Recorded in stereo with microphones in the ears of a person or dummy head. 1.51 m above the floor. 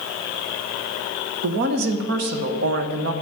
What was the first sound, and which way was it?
A woman speaking, 50° right (ahead or behind).